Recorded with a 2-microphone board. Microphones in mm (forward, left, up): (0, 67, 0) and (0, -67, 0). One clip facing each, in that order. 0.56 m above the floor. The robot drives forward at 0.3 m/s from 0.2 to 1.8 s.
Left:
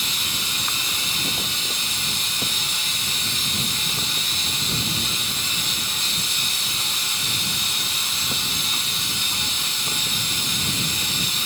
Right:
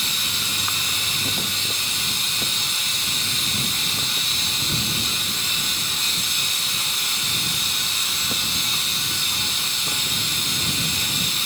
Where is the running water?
20° left (ahead or behind), 1.2 m; by 11.5 s 15° left (ahead or behind), 1.7 m.